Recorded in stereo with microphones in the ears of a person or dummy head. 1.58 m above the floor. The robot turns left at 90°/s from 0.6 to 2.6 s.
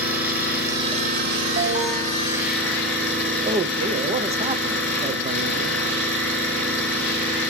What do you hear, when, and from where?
0.0 s an engine running: 10° right, 5 m; by 7.5 s 170° left, 5 m
1.6 s an alarm: 120° right, 2.0 m; by 2.1 s 175° right, 2.0 m
3.5 s a man speaking: 35° right (ahead or behind), 0.8 m